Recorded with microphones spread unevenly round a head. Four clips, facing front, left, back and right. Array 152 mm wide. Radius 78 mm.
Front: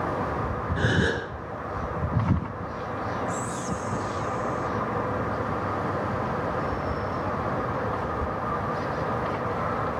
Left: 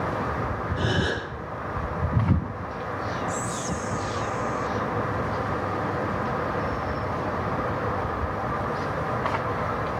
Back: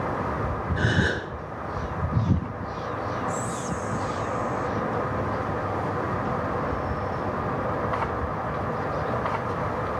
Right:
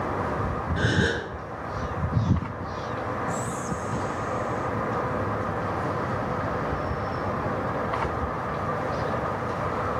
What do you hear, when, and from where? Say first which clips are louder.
0.8 s a gasp: right 2 dB, front 1 dB; 60° right, 7.5 m
3.3 s whispering: even, back 1 dB; 155° left, 0.8 m